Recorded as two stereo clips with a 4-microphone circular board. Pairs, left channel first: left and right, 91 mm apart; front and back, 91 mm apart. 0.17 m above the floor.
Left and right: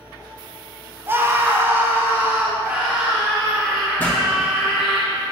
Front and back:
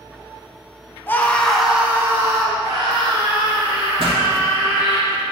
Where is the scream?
45° right, 1.2 m; by 5.0 s 175° right, 3.5 m.